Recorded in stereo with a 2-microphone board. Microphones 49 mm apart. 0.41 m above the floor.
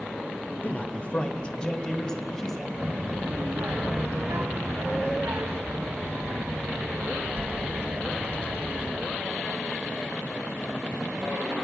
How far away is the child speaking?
About 2.5 m.